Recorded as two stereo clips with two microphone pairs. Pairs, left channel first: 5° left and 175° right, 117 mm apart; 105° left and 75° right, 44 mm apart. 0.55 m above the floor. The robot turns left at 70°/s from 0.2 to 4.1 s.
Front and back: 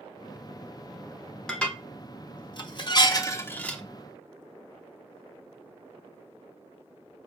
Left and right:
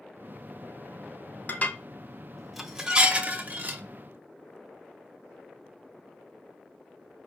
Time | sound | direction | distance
1.5 | dishes clattering | 85° left | 0.6 m